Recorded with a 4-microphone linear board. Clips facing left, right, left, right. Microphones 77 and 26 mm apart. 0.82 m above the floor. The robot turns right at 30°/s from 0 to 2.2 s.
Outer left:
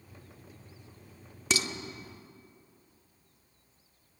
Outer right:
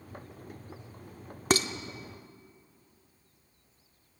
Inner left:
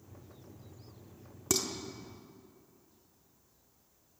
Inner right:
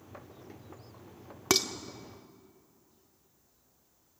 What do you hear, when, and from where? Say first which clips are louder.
1.5 s dishes clattering: outer right 5 dB, inner right 5 dB; 50° right (ahead or behind), 1.0 m; by 1.7 s 45° right (ahead or behind), 1.0 m